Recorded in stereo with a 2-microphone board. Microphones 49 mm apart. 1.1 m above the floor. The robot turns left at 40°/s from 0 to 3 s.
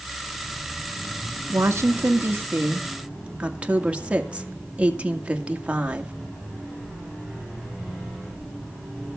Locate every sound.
1.5 s a woman speaking: 95° right, 1.8 m; by 6.1 s 155° right, 1.8 m